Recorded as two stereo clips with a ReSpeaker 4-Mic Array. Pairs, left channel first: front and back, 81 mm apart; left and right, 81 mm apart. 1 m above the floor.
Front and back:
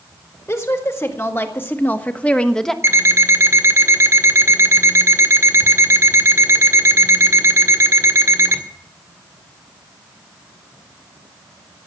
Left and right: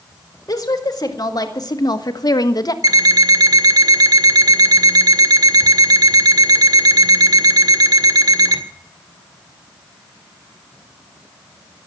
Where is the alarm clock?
125° right, 1.8 m.